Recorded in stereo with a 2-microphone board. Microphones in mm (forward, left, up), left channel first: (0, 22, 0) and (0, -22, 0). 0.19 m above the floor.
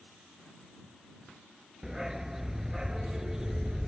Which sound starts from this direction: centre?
A dog barking, at 1.8 s.